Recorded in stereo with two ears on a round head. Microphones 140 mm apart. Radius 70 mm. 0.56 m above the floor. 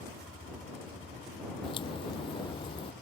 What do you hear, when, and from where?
1.6 s a crack: 35° left (ahead or behind)